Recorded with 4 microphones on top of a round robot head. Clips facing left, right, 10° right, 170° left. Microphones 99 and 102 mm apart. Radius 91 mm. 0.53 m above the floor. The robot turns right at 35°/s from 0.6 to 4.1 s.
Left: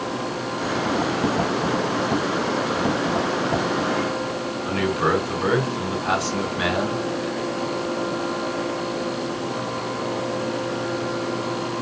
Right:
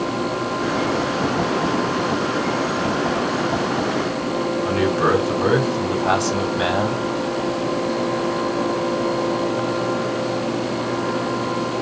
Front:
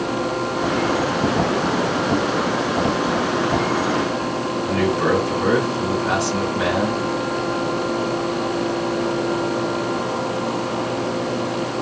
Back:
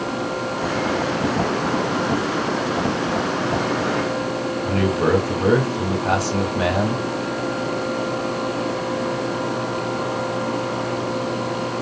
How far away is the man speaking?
About 3 m.